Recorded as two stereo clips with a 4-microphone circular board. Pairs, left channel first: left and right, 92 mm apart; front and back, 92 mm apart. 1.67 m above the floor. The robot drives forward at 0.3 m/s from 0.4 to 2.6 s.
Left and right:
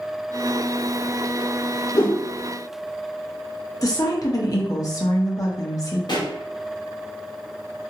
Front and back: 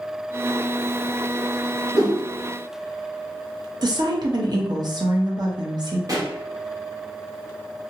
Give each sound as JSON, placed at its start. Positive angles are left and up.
{"t": 1.9, "sound": "a whoosh", "azimuth_deg": 135, "distance_m": 0.8}
{"t": 3.8, "sound": "a woman speaking", "azimuth_deg": 140, "distance_m": 0.8}
{"t": 6.1, "sound": "a pop", "azimuth_deg": 130, "distance_m": 0.8}